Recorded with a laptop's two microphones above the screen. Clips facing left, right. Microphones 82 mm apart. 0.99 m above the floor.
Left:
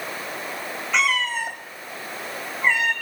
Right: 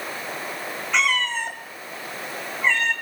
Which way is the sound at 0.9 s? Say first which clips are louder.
Even; centre (ahead or behind).